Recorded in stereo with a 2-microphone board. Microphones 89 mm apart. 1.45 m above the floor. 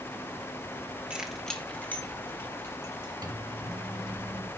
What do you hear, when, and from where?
1.1 s keys jangling: 15° right (ahead or behind), 1.1 m; by 3.1 s 30° left (ahead or behind), 3.5 m
3.2 s a microwave: 45° right (ahead or behind), 1.7 m